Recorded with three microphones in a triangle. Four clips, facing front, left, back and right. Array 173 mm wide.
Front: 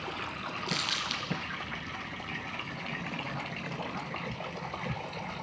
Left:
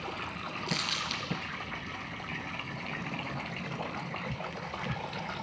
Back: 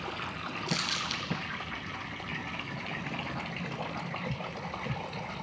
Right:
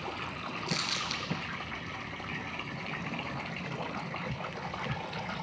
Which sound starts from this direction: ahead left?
Crumpling, at 0.7 s.